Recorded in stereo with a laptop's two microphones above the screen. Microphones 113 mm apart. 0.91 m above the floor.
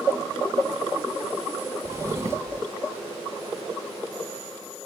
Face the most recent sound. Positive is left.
turn(degrees=-25)  # may be behind; listen again after turning